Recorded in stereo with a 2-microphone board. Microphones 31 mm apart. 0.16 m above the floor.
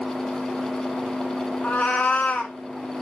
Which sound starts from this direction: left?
A cat meowing, at 1.6 s.